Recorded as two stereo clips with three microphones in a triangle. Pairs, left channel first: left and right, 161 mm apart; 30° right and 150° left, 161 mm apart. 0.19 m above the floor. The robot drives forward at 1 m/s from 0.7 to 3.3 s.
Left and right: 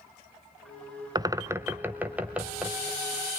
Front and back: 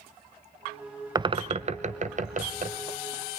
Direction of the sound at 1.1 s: 145° right.